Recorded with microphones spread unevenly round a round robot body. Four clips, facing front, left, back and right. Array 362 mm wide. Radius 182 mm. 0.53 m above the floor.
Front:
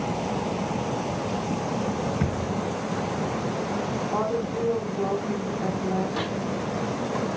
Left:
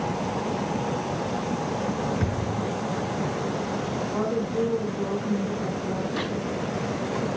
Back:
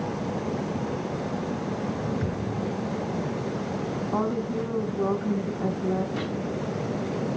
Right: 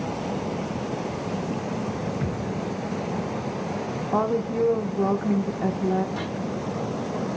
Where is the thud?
35° left, 3 m.